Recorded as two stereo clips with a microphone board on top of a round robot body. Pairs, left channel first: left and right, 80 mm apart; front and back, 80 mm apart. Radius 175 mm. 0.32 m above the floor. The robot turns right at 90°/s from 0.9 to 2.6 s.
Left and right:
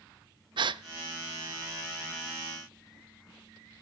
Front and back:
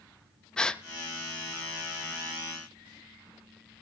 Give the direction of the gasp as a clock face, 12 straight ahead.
3 o'clock.